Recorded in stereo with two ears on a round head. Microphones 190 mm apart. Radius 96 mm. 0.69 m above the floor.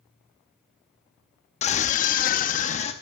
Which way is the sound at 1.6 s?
30° left (ahead or behind).